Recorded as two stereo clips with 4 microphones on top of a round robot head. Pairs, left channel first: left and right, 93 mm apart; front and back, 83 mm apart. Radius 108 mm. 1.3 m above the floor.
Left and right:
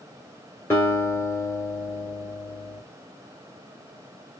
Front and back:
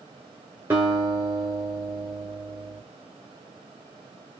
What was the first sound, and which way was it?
A guitar, 140° left.